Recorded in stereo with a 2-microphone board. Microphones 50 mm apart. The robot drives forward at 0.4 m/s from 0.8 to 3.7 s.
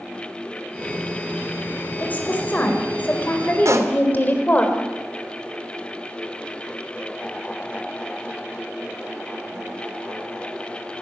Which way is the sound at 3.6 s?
75° right (ahead or behind).